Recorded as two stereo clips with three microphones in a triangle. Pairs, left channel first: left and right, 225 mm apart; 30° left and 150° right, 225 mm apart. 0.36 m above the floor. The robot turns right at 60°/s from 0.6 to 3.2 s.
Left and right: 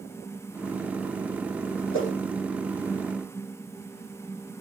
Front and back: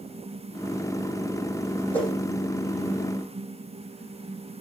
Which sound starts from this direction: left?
A whoosh, at 1.9 s.